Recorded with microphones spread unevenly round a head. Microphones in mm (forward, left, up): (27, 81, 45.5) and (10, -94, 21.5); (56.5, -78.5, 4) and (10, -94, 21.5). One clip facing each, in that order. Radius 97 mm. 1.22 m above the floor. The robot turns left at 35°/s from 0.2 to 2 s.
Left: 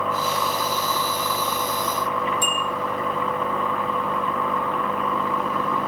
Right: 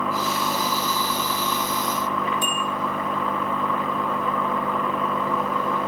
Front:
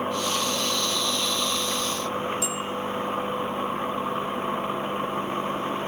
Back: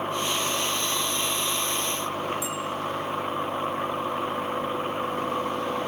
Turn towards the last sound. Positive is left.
turn(degrees=90)